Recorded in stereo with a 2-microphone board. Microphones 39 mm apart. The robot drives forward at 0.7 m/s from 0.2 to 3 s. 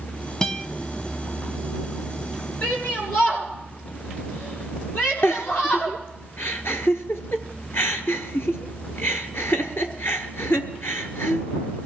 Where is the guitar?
15° left (ahead or behind), 0.6 m.